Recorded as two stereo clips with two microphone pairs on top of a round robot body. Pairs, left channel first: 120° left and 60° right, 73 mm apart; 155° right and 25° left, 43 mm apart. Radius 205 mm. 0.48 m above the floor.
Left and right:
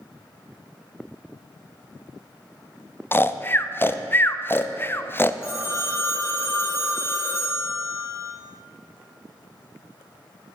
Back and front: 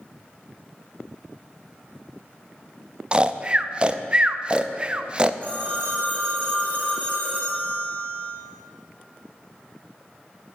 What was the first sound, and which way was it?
Snoring, 80° left.